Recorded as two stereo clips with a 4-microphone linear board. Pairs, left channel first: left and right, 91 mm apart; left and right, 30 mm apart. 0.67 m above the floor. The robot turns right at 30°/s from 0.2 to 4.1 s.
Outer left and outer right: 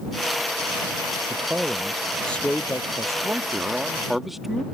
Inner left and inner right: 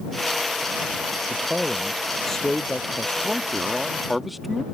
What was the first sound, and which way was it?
A man speaking, 20° right.